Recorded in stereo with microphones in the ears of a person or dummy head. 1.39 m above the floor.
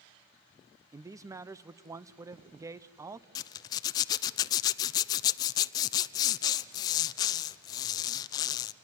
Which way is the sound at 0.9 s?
15° right (ahead or behind).